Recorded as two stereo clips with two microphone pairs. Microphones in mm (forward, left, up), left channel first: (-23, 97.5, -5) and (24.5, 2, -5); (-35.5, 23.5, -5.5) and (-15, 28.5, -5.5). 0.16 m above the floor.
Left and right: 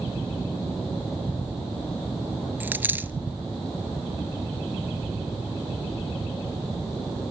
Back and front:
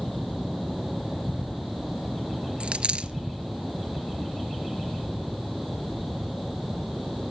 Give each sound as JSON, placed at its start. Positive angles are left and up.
{"t": 2.6, "sound": "a dropped coin", "azimuth_deg": 10, "distance_m": 0.8}